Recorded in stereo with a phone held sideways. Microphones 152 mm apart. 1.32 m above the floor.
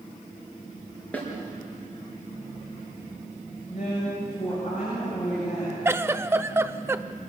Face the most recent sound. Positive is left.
turn(degrees=-15)  # may be behind; listen again after turning